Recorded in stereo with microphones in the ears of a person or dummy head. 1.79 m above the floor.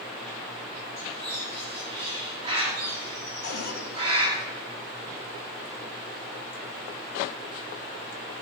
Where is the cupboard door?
60° left (ahead or behind), 2.5 m.